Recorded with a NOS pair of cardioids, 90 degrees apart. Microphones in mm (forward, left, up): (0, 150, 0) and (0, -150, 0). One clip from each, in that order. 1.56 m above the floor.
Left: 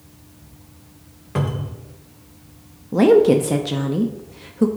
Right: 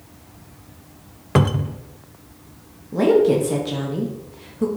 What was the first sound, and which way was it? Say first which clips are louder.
A cupboard door: right 6 dB; 40° right.